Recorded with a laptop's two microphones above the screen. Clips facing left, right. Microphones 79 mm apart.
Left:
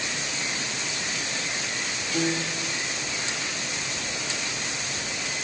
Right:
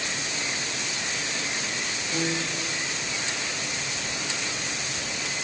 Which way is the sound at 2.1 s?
35° right (ahead or behind).